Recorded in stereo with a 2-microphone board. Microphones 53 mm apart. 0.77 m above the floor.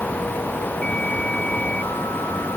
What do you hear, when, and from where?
Only background noise.